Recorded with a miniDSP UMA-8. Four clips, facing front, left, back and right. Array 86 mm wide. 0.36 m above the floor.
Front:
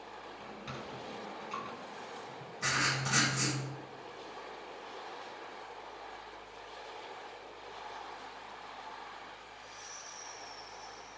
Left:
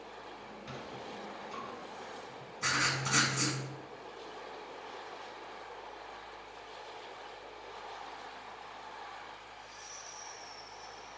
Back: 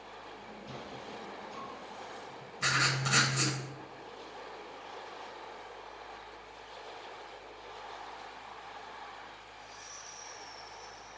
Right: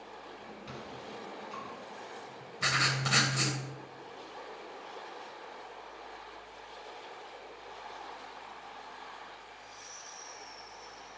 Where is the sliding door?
10° right, 1.5 m.